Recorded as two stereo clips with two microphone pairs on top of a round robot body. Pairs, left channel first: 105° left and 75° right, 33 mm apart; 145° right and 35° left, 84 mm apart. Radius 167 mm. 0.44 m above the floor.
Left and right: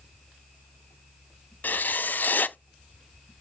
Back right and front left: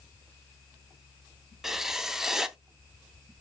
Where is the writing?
120° left, 0.5 m.